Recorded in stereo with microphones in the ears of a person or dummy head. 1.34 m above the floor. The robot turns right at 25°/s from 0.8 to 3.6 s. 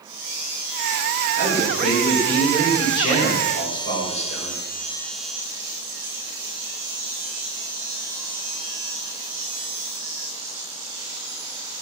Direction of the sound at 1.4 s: 15° right.